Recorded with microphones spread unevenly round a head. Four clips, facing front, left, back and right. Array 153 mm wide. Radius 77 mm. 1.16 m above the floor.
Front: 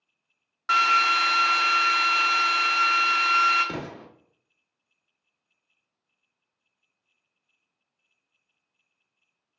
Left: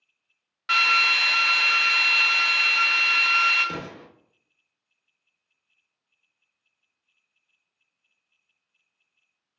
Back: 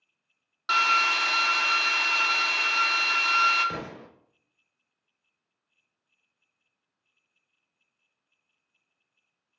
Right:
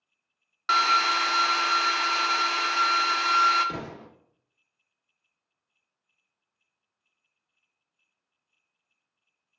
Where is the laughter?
No laughter in this recording.